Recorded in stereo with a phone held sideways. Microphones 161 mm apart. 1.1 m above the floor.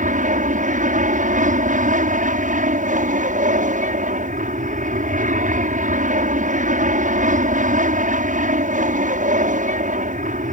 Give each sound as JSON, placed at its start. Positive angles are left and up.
{"t": 0.0, "sound": "an aircraft", "side_deg": -50}